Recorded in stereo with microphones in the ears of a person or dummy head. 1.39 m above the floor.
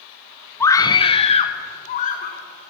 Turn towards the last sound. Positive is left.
turn(degrees=40)  # may be behind; listen again after turning